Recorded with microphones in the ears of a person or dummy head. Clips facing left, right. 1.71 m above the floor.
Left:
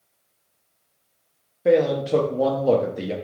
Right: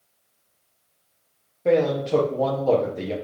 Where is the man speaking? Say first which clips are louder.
Left 2 dB; 10° left (ahead or behind), 0.5 m.